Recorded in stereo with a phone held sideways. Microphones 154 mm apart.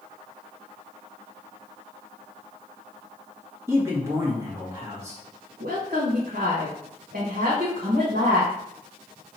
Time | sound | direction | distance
3.7 | a man speaking | 20° right (ahead or behind) | 1.5 m
5.6 | a woman speaking | 75° right (ahead or behind) | 1.2 m